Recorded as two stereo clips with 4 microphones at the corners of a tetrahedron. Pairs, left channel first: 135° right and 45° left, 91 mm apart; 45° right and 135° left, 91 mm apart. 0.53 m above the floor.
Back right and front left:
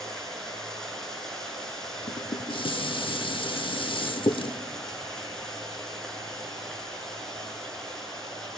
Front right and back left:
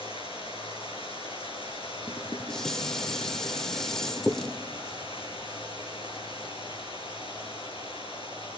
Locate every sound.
0.0 s running water: 50° right, 7 m
2.1 s dishes clattering: 130° right, 0.8 m